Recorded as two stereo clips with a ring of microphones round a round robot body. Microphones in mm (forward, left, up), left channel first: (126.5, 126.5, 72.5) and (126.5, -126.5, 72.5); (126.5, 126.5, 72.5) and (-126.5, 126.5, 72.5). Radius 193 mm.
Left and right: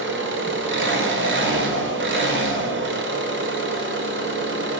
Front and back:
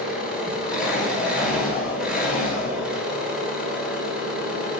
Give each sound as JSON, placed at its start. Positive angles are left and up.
{"t": 0.0, "sound": "an engine running", "azimuth_deg": -95, "distance_m": 1.6}